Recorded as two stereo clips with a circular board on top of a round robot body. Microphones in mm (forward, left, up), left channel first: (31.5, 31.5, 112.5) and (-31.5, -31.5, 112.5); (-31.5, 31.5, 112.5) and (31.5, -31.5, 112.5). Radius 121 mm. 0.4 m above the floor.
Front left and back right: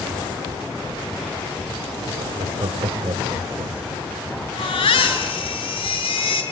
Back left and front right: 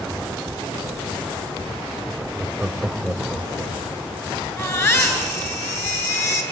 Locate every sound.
2.2 s laughter: 115° right, 1.4 m; by 4.5 s 155° right, 3 m
4.6 s a baby crying: 70° left, 3 m